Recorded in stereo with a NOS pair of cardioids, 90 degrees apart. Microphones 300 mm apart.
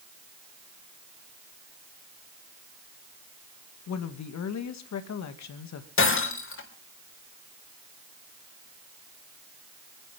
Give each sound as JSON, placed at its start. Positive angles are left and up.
{"t": 3.9, "sound": "a woman speaking", "azimuth_deg": 65, "distance_m": 2.0}
{"t": 6.0, "sound": "breaking glass", "azimuth_deg": 45, "distance_m": 3.5}